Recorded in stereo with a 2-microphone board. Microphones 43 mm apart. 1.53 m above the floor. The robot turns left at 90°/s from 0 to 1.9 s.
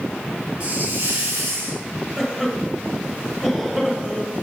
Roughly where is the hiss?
Ahead right.